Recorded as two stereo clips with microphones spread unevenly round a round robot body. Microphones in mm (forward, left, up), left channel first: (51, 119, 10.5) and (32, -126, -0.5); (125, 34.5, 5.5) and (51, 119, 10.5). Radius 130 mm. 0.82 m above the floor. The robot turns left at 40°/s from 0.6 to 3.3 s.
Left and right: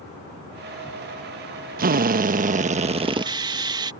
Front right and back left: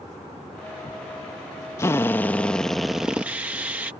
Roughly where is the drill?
Right.